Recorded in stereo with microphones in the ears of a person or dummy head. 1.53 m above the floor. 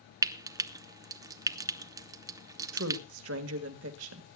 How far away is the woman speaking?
About 1.7 m.